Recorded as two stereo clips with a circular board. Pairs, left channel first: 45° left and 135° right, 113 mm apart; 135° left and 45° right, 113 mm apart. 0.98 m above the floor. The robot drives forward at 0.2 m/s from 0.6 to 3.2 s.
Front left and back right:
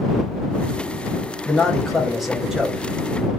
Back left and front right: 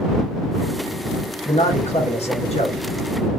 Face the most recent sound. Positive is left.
turn(degrees=140)